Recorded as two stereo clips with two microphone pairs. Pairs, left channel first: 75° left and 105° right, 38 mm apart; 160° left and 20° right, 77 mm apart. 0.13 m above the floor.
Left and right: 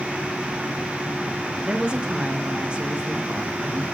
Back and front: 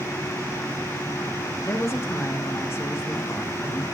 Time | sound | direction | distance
1.6 | a woman speaking | 160° right | 2 m